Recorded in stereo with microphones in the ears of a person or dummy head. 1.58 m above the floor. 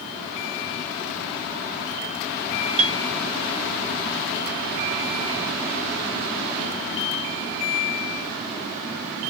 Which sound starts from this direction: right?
A piano, at 2.8 s.